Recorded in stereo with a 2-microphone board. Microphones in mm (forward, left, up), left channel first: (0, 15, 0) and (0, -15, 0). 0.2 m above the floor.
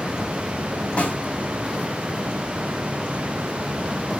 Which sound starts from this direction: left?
A snare drum, at 1.0 s.